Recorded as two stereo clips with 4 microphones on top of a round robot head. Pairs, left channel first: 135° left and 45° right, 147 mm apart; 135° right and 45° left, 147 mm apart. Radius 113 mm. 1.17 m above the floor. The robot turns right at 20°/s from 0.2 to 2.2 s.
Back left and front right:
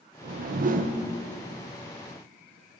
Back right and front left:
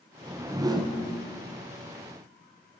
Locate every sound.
0.2 s a whoosh: 30° right, 0.8 m; by 1.0 s 15° right, 0.8 m